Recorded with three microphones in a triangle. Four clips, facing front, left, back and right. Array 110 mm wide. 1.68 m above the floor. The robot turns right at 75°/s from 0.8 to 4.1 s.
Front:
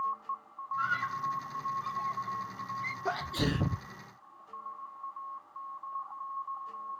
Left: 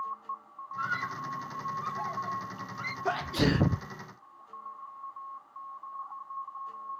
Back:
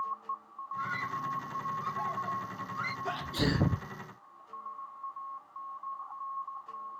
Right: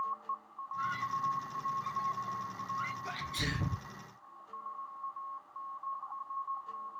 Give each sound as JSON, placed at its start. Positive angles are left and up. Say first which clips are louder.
{"t": 0.8, "sound": "a scream", "louder": "left 1 dB, front 3 dB", "azimuth_deg": 30}
{"t": 3.0, "sound": "a sneeze", "louder": "left 11 dB, even", "azimuth_deg": 65}